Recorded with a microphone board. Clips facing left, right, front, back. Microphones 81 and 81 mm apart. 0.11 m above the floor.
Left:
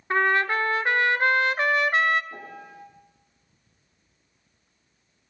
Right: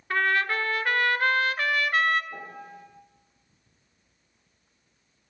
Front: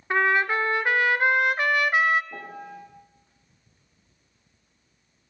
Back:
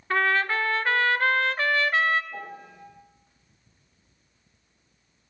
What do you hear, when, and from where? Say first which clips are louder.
0.1 s a trumpet: left 3 dB, front 2 dB; 55° left, 0.5 m
2.3 s a piano: even, front 1 dB; 10° left, 3.5 m